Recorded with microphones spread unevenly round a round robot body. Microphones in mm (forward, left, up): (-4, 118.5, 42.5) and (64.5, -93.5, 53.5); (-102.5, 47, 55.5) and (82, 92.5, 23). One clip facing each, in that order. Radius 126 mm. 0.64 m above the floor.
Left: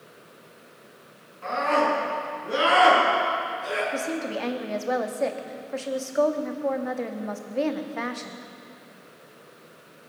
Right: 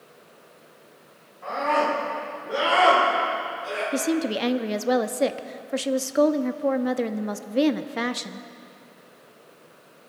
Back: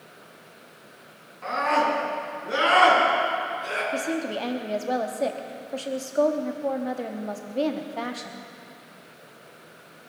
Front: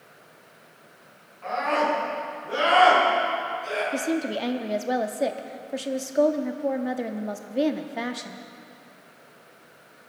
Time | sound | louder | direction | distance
1.4 | a scream | left 1 dB, even | 165° left | 7.5 m
3.9 | a woman speaking | right 5 dB, front 2 dB | 50° right | 0.8 m